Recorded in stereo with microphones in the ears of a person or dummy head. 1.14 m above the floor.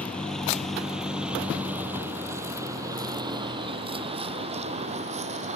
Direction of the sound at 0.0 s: 5° left (ahead or behind).